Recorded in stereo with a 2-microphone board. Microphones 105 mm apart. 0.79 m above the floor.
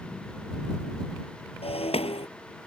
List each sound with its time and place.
1.6 s breaking glass: 75° left (ahead or behind)